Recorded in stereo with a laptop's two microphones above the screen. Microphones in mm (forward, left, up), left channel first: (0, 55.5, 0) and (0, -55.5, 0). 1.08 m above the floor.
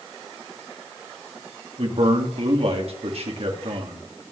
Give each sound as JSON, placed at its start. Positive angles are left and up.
{"t": 1.8, "sound": "a man speaking", "side_deg": -65, "distance_m": 2.0}